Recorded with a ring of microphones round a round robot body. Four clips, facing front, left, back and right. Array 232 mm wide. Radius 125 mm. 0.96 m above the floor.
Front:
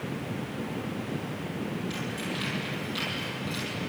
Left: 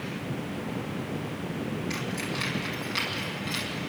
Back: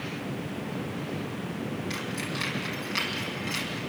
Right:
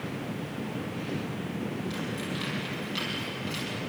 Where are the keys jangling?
135° left, 7 m; by 3.8 s 145° left, 7 m.